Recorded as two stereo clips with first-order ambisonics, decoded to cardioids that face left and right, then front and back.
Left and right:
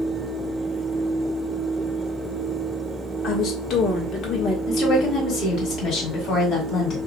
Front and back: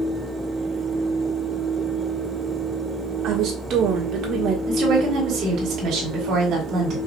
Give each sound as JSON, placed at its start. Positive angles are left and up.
{"t": 3.2, "sound": "a woman speaking", "azimuth_deg": 140, "distance_m": 1.2}
{"t": 4.7, "sound": "a woman speaking", "azimuth_deg": 140, "distance_m": 2.0}